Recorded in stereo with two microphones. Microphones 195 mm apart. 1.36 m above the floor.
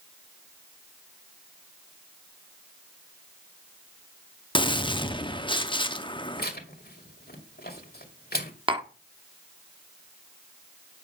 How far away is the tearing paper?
About 2 m.